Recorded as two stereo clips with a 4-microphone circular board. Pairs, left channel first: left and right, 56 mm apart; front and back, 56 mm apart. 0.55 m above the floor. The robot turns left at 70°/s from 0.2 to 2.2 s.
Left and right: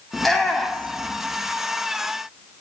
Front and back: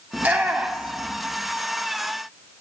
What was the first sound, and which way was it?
A shout, 175° left.